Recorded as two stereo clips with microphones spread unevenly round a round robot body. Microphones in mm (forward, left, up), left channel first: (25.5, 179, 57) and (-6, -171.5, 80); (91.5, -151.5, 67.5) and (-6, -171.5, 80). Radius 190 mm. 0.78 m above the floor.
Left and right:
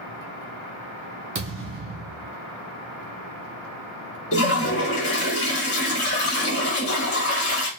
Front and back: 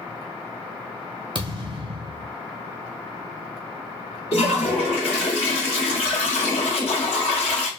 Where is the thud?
150° right, 0.5 m.